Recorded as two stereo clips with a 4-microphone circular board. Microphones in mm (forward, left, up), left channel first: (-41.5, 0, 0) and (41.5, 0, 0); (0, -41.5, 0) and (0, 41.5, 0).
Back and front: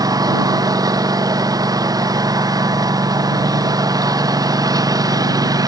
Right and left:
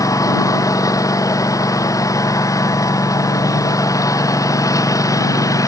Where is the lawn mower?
40° right.